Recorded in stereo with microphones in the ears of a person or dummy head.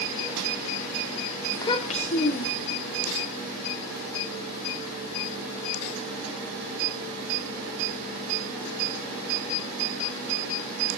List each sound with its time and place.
1.5 s a child speaking: 10° left (ahead or behind), 0.7 m; by 2.8 s 50° left (ahead or behind), 2.5 m